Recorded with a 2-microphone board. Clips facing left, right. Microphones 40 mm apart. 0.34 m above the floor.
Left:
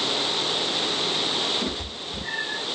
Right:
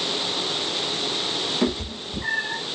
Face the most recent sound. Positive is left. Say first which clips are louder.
# right 5 dB
turn(degrees=-55)  # may be behind; listen again after turning